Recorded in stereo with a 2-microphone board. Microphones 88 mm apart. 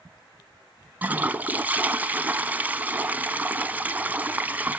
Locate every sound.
1.0 s a toilet flushing: 20° right (ahead or behind), 0.7 m